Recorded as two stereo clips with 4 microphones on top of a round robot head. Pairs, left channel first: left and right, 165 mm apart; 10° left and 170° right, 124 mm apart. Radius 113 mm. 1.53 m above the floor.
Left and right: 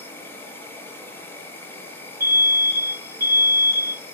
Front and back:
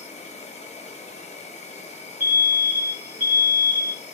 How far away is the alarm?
About 1.1 m.